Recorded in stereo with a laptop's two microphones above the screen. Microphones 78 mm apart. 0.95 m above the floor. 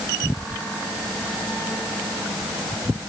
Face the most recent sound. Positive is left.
No sound to turn to.